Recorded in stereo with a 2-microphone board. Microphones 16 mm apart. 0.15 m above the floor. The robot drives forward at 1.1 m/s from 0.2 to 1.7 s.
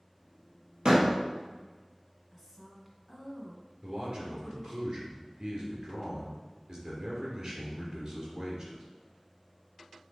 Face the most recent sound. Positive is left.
turn(degrees=-35)  # may be behind; listen again after turning